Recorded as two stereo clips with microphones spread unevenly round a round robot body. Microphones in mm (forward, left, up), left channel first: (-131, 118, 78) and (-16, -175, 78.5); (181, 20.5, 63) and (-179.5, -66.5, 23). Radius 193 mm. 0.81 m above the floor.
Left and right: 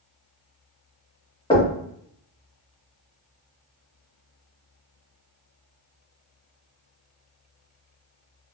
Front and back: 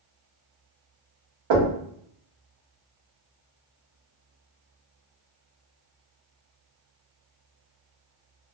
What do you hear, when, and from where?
1.5 s knocking: 175° right, 1.6 m